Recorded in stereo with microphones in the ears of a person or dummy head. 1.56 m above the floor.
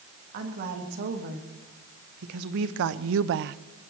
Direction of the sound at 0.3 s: 50° right (ahead or behind).